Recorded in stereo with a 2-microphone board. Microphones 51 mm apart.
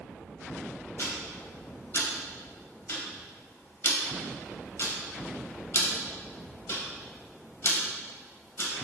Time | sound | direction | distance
1.0 | ticking | 50° left (ahead or behind) | 0.7 m